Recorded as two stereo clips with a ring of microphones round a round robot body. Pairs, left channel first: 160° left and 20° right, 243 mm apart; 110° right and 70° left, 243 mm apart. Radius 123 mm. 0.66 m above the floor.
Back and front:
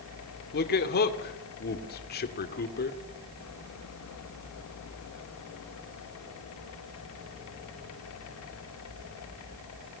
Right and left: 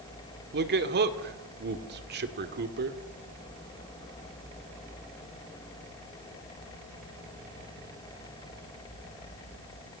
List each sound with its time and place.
0.5 s a man speaking: 110° left, 1.9 m